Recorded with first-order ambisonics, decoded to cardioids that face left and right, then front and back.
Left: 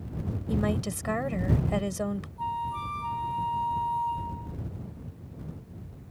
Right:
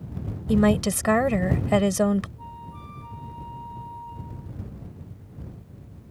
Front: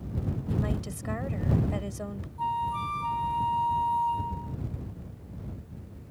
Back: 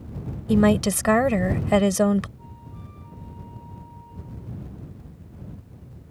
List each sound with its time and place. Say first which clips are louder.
0.5 s a woman speaking: right 9 dB, back 17 dB; 145° right
2.4 s a flute: left 10 dB, front 19 dB; 30° left